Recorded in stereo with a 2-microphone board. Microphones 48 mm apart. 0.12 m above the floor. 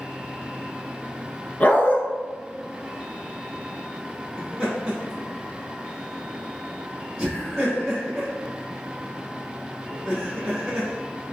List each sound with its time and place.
1.6 s a dog barking: 35° left (ahead or behind), 0.7 m
4.4 s laughter: centre (ahead or behind), 1.8 m